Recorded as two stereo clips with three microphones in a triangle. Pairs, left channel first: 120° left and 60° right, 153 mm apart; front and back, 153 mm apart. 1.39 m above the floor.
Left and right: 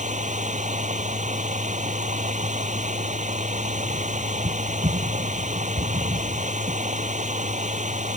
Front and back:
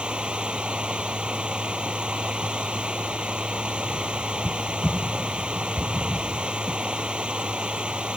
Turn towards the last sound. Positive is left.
turn(degrees=-95)